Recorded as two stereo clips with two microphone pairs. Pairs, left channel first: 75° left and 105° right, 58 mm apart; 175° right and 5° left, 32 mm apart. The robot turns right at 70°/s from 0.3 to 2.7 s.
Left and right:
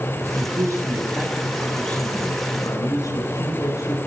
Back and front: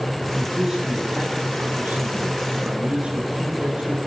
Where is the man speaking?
90° right, 7.5 m; by 4.0 s 70° left, 7.5 m.